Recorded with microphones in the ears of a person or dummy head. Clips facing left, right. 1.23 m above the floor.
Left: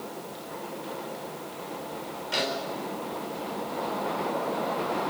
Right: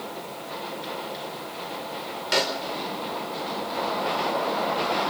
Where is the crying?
I don't hear crying.